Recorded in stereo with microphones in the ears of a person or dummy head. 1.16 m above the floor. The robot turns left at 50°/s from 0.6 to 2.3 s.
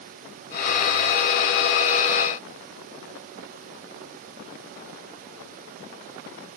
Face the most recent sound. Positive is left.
No sound to turn to.